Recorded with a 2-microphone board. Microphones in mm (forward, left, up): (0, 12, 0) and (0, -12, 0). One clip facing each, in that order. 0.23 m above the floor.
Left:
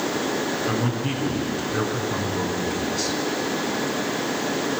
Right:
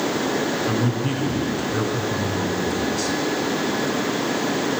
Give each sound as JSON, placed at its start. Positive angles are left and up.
{"t": 0.7, "sound": "a man speaking", "side_deg": 5, "distance_m": 3.0}